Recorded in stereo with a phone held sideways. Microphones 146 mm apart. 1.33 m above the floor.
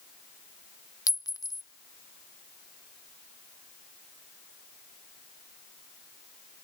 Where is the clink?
25° left (ahead or behind), 0.6 m.